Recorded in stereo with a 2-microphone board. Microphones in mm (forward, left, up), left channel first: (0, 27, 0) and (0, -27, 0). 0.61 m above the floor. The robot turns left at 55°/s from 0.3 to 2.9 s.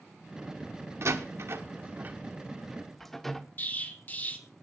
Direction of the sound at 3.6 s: 35° left (ahead or behind).